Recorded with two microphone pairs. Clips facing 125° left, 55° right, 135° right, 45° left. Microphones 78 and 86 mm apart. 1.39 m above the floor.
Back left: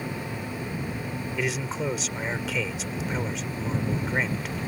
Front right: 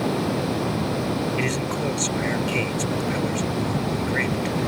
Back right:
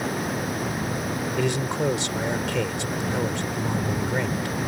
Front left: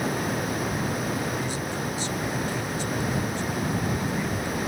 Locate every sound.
0.0 s running water: 45° right
1.4 s a man speaking: 150° right